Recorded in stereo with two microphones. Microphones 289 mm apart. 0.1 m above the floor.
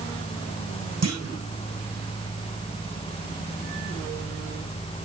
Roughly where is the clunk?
Right.